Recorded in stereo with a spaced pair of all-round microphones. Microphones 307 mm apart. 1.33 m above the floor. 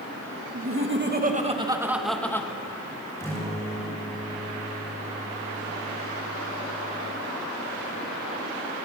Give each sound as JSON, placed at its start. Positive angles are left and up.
{"t": 0.5, "sound": "laughter", "side_deg": -50, "distance_m": 2.0}
{"t": 3.2, "sound": "a guitar", "side_deg": 10, "distance_m": 7.0}